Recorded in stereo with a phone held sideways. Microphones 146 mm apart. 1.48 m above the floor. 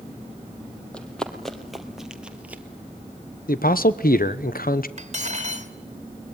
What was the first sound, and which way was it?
Running footsteps, 5° left (ahead or behind).